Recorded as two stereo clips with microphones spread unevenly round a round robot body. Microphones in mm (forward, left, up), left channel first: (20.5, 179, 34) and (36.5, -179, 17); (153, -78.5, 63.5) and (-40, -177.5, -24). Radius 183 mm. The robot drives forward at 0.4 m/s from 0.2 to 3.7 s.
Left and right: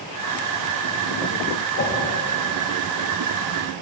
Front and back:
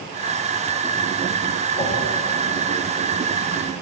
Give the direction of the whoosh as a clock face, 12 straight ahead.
8 o'clock.